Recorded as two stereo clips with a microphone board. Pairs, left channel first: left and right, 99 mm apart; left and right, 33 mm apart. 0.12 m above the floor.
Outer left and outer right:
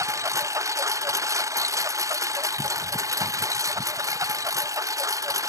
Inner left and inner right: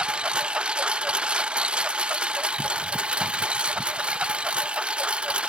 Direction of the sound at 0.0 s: 30° right (ahead or behind).